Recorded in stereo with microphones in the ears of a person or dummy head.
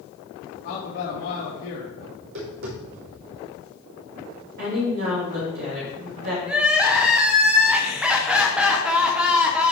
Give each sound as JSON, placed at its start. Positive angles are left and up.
{"t": 0.6, "sound": "a man speaking", "side_deg": 80, "distance_m": 3.0}
{"t": 2.1, "sound": "tapping", "side_deg": -70, "distance_m": 4.5}
{"t": 4.6, "sound": "a woman speaking", "side_deg": -60, "distance_m": 3.5}
{"t": 6.5, "sound": "crying", "side_deg": -10, "distance_m": 1.0}